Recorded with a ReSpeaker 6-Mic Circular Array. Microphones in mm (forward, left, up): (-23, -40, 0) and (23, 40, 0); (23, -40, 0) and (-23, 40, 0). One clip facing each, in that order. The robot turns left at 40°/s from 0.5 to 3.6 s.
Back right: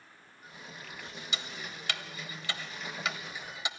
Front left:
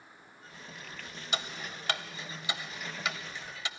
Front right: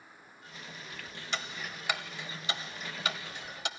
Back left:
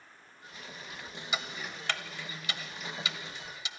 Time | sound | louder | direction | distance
1.3 | ticking | front left 6 dB, back left 1 dB | 40° left | 0.9 m